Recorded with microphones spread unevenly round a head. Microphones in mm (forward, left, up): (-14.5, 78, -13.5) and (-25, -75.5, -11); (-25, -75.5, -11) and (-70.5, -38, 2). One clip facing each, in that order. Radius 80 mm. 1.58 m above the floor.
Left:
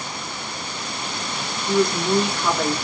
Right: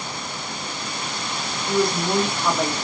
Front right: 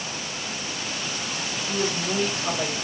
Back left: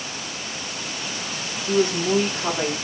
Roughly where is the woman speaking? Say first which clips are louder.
Left 2 dB, back left 8 dB; behind.